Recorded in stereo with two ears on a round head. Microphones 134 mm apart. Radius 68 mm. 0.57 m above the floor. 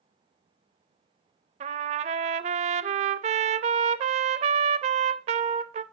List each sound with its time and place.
1.6 s a trumpet: 40° right (ahead or behind), 0.5 m